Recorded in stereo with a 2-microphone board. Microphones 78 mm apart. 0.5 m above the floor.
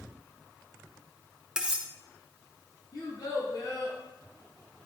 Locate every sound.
1.6 s cutlery clinking: 10° right (ahead or behind), 0.6 m
2.9 s a child speaking: 70° left (ahead or behind), 2 m